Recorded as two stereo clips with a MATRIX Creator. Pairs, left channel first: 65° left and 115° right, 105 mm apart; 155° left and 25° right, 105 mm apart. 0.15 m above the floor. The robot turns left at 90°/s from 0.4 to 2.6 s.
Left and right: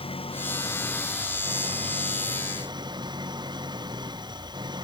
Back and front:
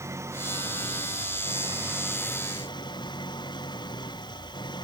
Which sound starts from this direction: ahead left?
An engine running, at 0.0 s.